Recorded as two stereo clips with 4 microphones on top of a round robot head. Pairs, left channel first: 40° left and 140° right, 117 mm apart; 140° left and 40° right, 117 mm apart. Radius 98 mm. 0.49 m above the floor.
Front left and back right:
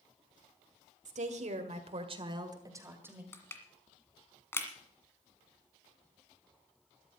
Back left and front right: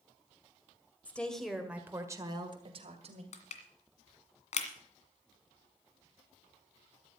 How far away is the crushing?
About 1.8 m.